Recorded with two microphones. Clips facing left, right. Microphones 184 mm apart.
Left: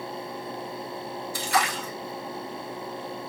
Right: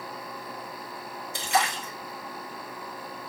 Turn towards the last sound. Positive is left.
turn(degrees=-20)  # may be behind; listen again after turning